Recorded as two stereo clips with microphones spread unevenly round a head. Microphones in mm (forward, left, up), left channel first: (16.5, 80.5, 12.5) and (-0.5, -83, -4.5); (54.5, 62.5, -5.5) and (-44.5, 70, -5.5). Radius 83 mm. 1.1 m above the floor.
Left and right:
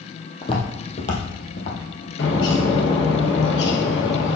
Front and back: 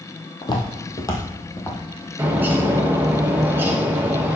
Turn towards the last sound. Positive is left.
turn(degrees=105)